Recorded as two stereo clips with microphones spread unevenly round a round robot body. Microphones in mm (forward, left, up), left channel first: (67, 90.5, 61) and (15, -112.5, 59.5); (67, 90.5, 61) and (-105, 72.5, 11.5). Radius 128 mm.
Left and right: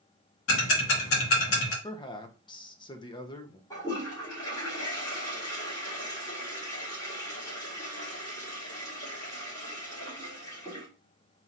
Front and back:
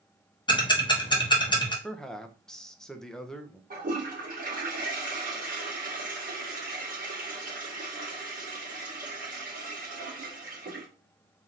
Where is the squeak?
I don't hear a squeak.